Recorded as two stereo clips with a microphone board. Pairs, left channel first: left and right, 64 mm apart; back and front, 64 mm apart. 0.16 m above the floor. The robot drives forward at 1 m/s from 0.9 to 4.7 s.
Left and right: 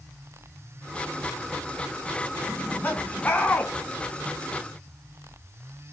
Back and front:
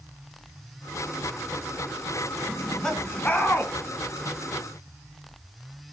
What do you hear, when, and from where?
2.5 s laughter: 85° left, 1.7 m; by 3.7 s 145° left, 2 m